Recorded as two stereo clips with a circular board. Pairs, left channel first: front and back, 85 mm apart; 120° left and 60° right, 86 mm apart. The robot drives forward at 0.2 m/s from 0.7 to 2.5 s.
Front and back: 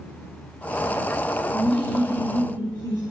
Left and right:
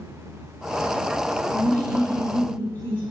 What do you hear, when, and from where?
1.5 s laughter: 175° right, 1.0 m